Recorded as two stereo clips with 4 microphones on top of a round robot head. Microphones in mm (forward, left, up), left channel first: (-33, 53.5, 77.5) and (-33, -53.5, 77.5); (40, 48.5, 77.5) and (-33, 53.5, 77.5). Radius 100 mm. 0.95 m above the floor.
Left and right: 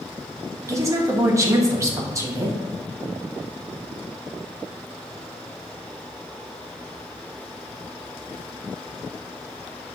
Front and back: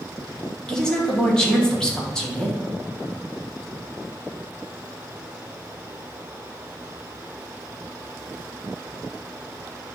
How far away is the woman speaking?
About 0.9 m.